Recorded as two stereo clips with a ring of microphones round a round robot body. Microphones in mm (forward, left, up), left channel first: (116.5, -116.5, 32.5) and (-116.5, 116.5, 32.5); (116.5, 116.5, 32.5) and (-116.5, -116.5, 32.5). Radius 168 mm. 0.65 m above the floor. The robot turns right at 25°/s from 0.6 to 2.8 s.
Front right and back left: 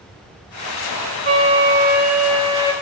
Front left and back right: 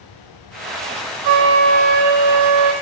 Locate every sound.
1.2 s a flute: 160° right, 1.2 m; by 2.7 s 120° right, 1.2 m